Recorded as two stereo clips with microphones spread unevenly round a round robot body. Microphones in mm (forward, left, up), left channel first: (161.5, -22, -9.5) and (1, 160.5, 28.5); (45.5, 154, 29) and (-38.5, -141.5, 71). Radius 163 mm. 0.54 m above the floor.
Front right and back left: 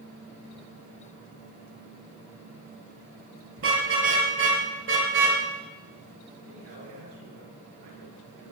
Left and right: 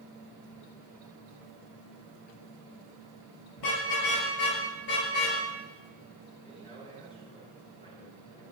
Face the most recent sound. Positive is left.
turn(degrees=150)